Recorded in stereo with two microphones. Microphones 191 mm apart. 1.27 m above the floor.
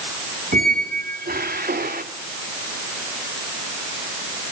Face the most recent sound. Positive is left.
turn(degrees=-50)  # may be behind; listen again after turning